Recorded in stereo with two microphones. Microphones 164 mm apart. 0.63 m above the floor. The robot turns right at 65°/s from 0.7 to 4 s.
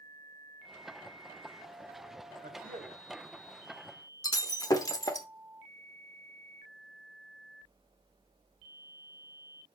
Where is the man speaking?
80° right, 2 m; by 3.0 s 35° right, 2 m.